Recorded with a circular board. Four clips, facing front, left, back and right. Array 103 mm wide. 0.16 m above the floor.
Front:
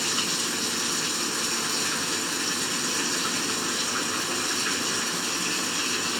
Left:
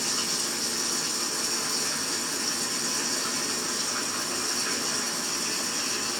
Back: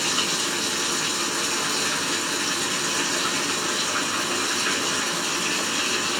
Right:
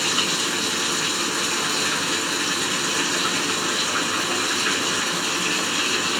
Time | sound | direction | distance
0.0 | running water | 110° right | 1.1 m